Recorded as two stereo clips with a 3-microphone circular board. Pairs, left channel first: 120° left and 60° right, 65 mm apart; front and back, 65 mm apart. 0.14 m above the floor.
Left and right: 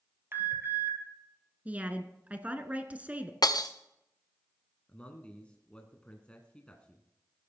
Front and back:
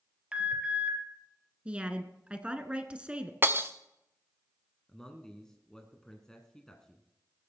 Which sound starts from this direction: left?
A man speaking, at 4.9 s.